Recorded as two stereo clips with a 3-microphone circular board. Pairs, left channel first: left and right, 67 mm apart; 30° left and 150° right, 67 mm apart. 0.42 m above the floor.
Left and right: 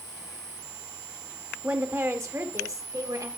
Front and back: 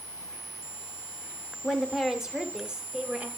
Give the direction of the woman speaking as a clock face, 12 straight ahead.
2 o'clock.